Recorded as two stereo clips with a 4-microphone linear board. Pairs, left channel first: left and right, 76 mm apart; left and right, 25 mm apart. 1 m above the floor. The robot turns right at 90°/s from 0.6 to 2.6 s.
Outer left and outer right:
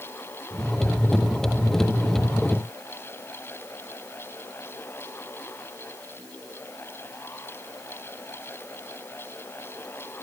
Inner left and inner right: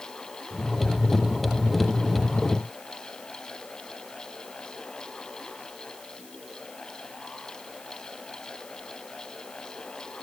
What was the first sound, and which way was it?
Only background noise.